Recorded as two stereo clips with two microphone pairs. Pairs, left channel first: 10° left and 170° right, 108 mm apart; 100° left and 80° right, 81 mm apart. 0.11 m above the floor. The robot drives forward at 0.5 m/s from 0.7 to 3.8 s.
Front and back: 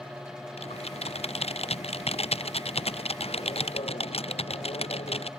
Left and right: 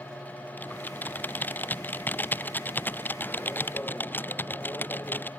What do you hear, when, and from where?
0.6 s typing on a keyboard: 30° left